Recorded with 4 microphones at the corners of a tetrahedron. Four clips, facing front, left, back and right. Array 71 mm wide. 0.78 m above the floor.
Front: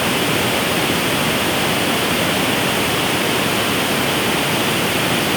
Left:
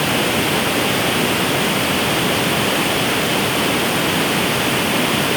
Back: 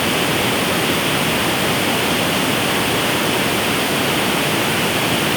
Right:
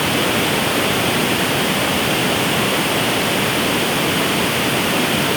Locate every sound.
Only background noise.